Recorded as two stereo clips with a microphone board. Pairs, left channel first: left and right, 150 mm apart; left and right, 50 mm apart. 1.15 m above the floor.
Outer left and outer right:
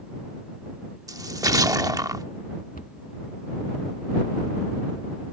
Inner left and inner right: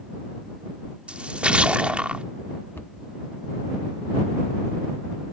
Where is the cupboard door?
65° left (ahead or behind).